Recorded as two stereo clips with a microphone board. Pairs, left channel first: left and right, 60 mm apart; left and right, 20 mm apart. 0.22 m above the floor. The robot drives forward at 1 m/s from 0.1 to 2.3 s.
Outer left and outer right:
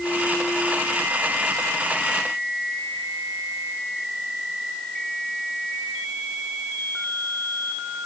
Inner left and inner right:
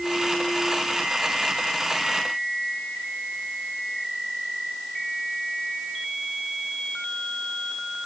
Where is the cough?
I don't hear a cough.